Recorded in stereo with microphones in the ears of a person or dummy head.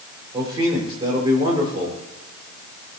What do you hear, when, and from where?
0.3 s a man speaking: 25° right (ahead or behind), 4.5 m